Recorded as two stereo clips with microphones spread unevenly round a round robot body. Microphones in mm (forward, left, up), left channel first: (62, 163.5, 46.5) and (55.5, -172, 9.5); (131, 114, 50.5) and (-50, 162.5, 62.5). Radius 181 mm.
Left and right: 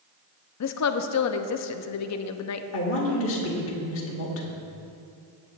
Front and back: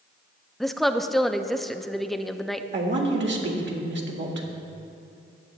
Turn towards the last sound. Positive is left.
turn(degrees=145)